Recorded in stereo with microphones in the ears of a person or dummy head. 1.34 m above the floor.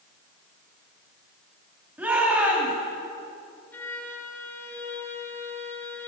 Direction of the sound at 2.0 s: 5° right (ahead or behind).